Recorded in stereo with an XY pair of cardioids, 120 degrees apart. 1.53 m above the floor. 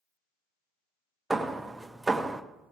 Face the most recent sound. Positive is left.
turn(degrees=0)